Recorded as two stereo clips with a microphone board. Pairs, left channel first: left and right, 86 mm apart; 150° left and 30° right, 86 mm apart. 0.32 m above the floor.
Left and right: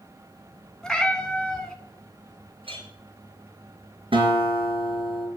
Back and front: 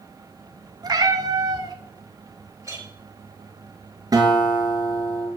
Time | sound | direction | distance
0.8 | a cat meowing | 5° left | 1.5 m
2.6 | a clink | 85° right | 4 m
4.1 | a guitar | 80° right | 3 m